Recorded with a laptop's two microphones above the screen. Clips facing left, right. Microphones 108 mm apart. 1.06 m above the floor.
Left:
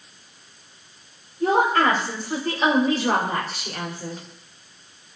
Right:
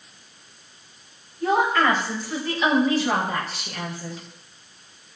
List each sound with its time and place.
1.4 s a woman speaking: 45° left (ahead or behind), 5 m